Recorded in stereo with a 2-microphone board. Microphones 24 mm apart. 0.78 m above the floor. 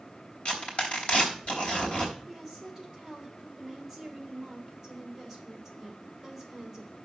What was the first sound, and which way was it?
Tearing paper, 55° left (ahead or behind).